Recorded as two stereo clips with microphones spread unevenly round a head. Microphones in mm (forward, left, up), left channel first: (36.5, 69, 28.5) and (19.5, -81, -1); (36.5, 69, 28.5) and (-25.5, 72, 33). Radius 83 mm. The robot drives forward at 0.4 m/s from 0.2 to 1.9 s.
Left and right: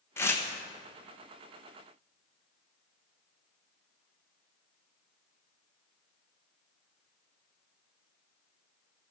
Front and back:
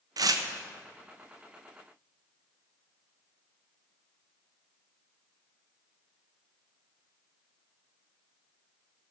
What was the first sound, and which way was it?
Tearing paper, 160° left.